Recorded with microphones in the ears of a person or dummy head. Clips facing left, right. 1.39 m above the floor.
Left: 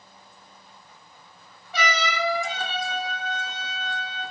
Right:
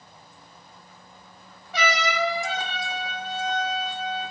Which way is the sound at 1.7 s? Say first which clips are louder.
Right 2 dB; 70° left (ahead or behind).